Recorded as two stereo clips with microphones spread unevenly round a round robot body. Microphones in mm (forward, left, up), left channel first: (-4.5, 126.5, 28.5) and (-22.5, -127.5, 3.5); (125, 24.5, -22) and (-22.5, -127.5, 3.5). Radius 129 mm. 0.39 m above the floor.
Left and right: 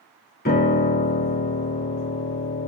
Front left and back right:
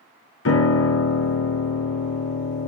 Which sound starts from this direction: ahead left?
A piano, at 0.5 s.